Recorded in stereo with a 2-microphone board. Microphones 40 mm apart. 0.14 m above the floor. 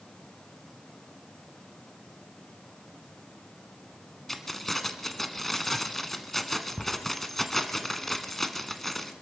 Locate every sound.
4.3 s keys jangling: 5° left (ahead or behind), 1.0 m